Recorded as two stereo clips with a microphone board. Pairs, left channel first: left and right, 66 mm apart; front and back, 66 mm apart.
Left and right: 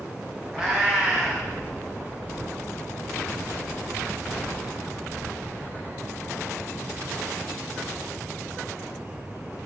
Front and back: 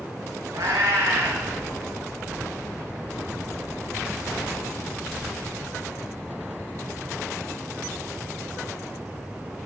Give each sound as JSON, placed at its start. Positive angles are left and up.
{"t": 0.5, "sound": "a cat meowing", "azimuth_deg": -165, "distance_m": 3.5}